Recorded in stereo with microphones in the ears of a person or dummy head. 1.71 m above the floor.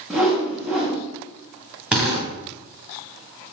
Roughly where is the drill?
Centre.